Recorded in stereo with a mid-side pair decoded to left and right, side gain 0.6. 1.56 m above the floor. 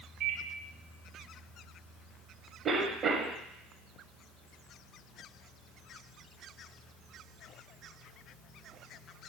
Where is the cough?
45° right, 0.9 m.